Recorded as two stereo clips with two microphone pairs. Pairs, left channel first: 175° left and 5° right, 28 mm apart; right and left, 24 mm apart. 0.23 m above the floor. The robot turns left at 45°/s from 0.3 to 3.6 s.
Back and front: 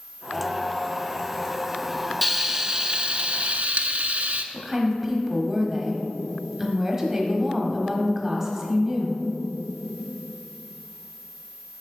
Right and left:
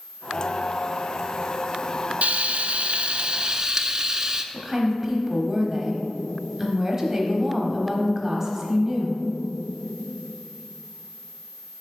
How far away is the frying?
About 0.5 m.